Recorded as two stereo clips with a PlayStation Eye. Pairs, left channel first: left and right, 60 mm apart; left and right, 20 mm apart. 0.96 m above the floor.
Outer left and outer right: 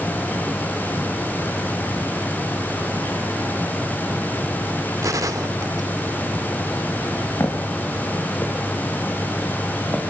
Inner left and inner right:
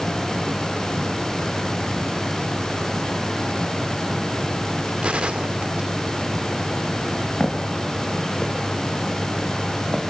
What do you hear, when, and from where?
5.0 s a gunshot: 65° right (ahead or behind), 1.0 m
7.4 s footsteps: 55° left (ahead or behind), 4 m; by 10.0 s 35° left (ahead or behind), 6.5 m